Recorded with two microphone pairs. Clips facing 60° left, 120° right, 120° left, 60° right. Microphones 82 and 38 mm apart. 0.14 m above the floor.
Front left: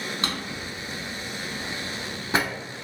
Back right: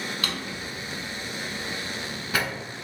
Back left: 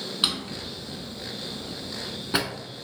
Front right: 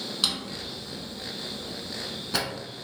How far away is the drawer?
About 0.5 m.